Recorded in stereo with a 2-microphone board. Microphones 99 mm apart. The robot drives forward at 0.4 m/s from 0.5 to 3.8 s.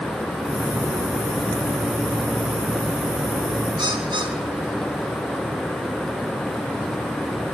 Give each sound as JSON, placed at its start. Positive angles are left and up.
{"t": 3.8, "sound": "a bird", "side_deg": -45, "distance_m": 6.0}